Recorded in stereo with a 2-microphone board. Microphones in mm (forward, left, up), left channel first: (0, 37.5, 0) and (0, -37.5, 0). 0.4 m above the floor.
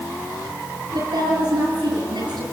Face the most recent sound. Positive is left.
turn(degrees=-80)